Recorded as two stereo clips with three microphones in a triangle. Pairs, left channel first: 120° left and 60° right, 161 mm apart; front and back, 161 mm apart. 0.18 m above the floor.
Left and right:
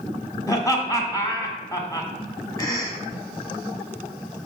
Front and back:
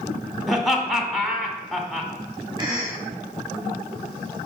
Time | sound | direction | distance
0.5 | laughter | 90° left | 1.0 m
2.6 | a cough | 160° left | 1.4 m